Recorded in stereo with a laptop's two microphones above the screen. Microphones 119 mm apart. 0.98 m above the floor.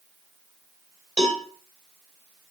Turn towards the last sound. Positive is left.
turn(degrees=-70)  # may be behind; listen again after turning